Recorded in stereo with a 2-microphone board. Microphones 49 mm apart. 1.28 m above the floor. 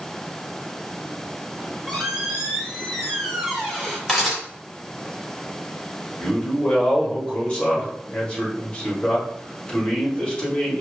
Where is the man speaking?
20° left (ahead or behind), 1.7 m.